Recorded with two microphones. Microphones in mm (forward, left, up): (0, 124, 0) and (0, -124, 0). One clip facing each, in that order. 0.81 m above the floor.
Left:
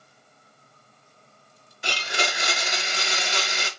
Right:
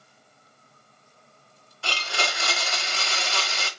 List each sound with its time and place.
1.8 s a blender: 20° left (ahead or behind), 0.6 m